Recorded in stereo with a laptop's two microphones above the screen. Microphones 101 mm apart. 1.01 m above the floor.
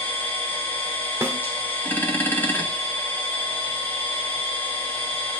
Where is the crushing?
I don't hear crushing.